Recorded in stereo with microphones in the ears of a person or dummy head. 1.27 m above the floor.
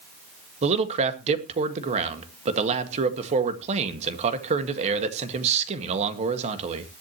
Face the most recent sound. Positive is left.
turn(degrees=-40)  # may be behind; listen again after turning